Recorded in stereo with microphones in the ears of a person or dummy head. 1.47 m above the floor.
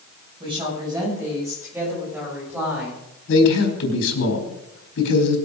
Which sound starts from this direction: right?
A woman speaking, at 0.4 s.